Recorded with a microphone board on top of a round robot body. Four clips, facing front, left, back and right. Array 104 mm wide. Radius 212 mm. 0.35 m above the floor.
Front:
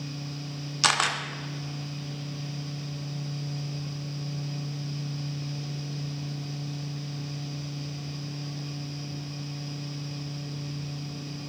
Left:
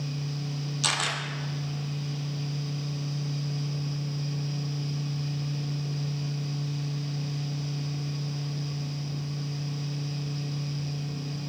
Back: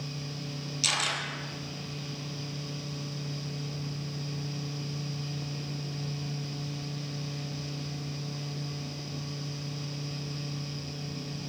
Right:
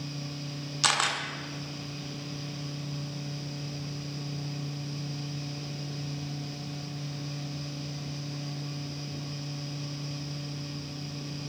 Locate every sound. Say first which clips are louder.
0.8 s a camera shutter: right 4 dB, front 8 dB; 20° right, 2 m